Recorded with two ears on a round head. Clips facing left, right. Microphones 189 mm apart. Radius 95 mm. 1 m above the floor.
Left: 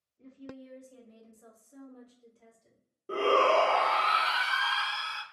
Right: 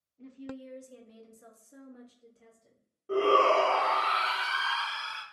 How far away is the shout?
About 0.7 m.